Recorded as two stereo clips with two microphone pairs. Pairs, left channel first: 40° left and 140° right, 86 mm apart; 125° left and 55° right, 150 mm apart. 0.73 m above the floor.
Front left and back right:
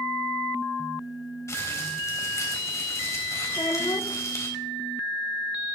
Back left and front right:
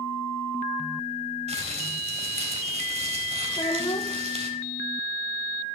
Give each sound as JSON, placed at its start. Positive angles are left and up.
{"t": 1.5, "sound": "crumpling", "azimuth_deg": -15, "distance_m": 3.5}
{"t": 3.5, "sound": "a child speaking", "azimuth_deg": 75, "distance_m": 0.7}